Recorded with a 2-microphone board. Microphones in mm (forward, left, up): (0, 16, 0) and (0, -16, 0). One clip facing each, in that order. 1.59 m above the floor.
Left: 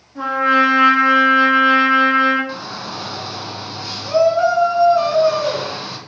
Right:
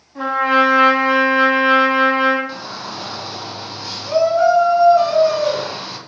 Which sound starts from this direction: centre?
A shout, at 2.5 s.